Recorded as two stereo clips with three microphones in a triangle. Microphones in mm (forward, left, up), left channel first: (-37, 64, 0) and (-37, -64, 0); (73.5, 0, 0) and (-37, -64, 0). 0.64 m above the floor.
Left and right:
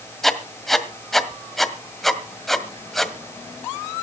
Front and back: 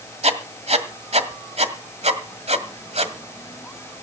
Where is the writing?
Straight behind, 1.8 m.